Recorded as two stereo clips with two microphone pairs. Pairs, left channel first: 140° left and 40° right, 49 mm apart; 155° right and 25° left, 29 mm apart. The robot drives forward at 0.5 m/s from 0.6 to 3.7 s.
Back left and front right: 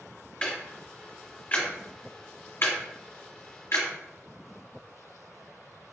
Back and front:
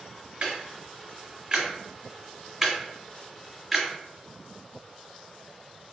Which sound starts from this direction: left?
Ticking, at 0.4 s.